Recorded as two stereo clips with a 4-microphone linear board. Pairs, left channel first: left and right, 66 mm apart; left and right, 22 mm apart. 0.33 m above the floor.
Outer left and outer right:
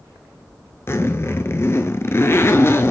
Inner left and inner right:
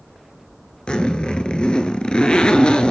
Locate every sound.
0.9 s a zipper: 40° left (ahead or behind), 0.7 m